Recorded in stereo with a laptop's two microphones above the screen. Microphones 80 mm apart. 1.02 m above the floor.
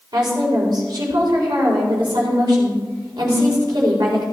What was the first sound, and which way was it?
A woman speaking, 65° right (ahead or behind).